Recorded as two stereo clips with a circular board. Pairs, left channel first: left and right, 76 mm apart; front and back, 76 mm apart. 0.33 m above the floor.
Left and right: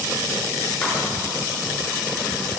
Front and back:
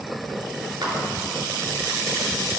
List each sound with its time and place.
0.8 s a clap: 160° left, 4 m